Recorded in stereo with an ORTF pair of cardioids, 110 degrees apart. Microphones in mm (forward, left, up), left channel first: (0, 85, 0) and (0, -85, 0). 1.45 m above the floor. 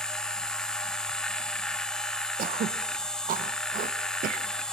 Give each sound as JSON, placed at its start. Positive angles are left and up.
{"t": 0.0, "sound": "a machine running", "azimuth_deg": 5, "distance_m": 1.4}
{"t": 2.4, "sound": "throat clearing", "azimuth_deg": -50, "distance_m": 1.2}